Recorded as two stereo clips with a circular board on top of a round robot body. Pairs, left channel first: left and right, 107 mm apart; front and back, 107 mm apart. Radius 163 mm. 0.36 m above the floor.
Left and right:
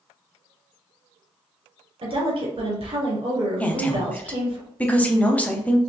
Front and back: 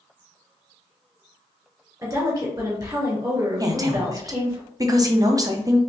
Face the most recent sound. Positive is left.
turn(degrees=160)